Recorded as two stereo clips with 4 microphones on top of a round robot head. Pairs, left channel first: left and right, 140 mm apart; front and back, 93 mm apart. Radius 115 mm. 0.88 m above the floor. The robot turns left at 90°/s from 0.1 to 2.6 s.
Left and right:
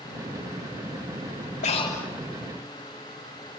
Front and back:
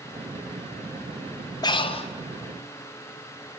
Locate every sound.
1.6 s breathing: 45° left, 2 m; by 2.1 s straight ahead, 2 m